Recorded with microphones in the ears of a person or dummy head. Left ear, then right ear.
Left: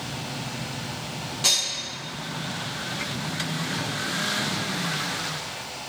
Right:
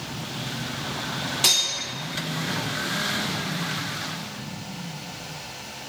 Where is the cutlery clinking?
15° right (ahead or behind), 0.9 m.